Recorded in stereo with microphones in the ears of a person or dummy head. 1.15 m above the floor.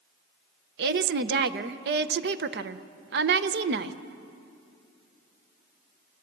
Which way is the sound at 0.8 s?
55° right (ahead or behind).